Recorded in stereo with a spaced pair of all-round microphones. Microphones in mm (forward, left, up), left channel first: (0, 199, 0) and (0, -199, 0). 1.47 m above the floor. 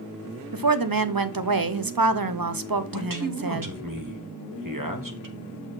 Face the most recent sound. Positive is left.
turn(degrees=-55)  # may be behind; listen again after turning